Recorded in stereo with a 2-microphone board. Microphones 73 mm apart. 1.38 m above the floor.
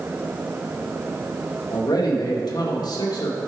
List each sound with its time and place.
1.7 s a man speaking: 65° left (ahead or behind), 2.0 m